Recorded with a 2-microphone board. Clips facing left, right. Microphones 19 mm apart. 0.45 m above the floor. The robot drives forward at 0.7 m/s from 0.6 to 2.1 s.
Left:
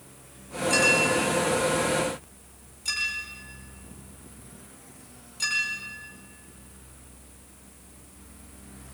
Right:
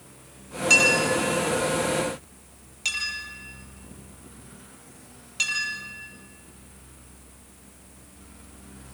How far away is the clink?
About 9 m.